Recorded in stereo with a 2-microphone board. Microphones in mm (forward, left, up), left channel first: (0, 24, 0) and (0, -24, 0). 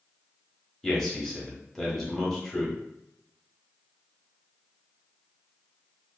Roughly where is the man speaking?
Centre.